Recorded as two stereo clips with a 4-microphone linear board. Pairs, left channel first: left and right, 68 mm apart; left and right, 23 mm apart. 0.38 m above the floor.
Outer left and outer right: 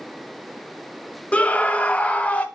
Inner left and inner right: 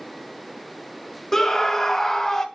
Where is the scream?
20° left (ahead or behind), 0.8 m.